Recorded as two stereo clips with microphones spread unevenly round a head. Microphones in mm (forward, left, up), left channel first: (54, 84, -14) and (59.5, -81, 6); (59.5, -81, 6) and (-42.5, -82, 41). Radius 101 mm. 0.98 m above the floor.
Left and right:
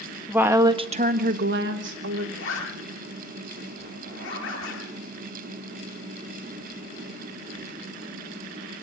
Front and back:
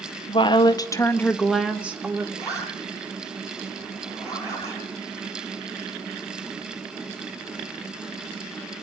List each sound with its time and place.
0.3 s a woman speaking: 5° right, 1.8 m; by 2.3 s 105° right, 2.5 m
2.4 s a zipper: 100° left, 7.5 m